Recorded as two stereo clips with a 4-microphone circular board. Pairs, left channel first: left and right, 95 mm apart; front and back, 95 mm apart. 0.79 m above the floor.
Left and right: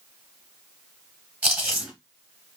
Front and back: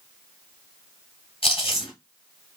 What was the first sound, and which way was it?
Chewing, 20° right.